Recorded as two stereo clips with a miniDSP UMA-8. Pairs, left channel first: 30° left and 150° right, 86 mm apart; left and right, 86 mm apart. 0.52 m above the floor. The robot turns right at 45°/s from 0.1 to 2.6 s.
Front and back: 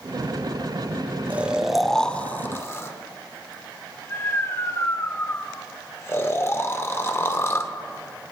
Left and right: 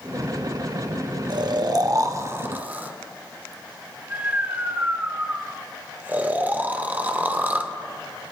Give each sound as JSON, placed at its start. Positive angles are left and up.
{"t": 1.3, "sound": "snoring", "azimuth_deg": -85, "distance_m": 0.9}